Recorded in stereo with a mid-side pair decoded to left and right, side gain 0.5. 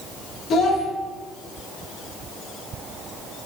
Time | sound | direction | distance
0.5 | a child speaking | 55° left | 1.3 m